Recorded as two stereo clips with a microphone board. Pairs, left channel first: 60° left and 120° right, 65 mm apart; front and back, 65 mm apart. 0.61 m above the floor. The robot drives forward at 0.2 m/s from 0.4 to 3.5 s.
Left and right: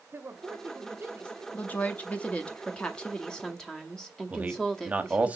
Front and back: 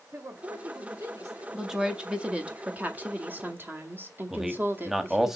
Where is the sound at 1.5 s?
100° left, 0.8 m; by 5.3 s 140° left, 0.9 m.